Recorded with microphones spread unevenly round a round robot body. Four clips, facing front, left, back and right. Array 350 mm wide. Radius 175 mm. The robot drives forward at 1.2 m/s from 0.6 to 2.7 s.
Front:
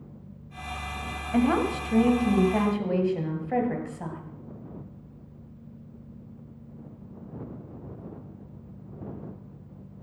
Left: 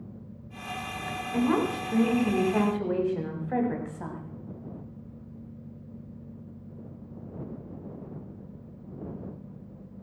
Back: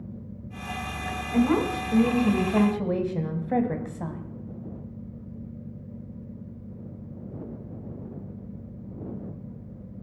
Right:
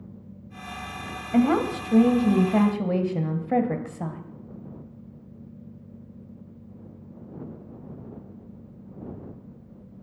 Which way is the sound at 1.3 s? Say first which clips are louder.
Right 5 dB, back 1 dB; 65° right.